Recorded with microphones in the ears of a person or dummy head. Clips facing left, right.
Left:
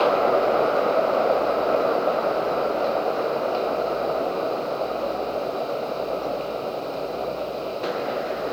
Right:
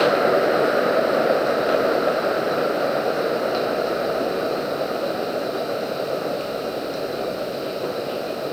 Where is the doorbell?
No doorbell in this recording.